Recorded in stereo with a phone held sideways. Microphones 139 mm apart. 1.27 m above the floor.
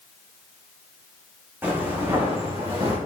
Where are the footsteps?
15° right (ahead or behind), 4.5 m; by 3.0 s 30° right (ahead or behind), 5.5 m.